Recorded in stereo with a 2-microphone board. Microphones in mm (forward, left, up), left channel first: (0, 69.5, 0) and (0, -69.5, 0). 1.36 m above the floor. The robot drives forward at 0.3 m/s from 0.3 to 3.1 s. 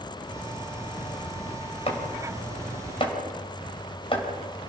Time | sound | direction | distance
1.9 | chopping | 40° left (ahead or behind) | 3.5 m